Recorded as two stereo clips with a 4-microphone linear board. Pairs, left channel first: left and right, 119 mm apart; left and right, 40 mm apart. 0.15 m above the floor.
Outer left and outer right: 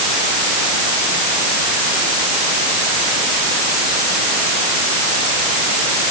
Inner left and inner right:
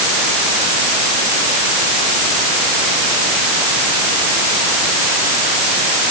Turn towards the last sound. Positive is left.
No sound to turn to.